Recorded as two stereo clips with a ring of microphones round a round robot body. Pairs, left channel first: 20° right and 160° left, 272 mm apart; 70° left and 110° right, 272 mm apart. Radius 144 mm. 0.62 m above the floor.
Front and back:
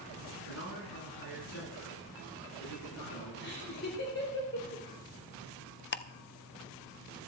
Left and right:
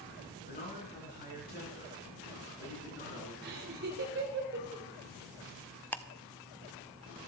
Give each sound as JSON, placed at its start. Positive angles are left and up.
{"t": 0.5, "sound": "a man speaking", "azimuth_deg": 10, "distance_m": 7.0}
{"t": 3.4, "sound": "laughter", "azimuth_deg": -65, "distance_m": 2.5}
{"t": 5.9, "sound": "ticking", "azimuth_deg": -10, "distance_m": 0.6}